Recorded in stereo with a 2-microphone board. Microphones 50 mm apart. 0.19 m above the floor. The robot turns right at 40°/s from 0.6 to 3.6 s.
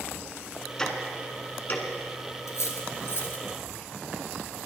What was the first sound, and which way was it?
Ticking, 10° left (ahead or behind).